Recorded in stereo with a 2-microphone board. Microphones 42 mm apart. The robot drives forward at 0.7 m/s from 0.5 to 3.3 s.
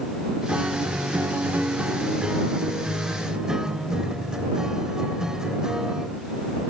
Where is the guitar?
30° right (ahead or behind); by 6.2 s 15° right (ahead or behind).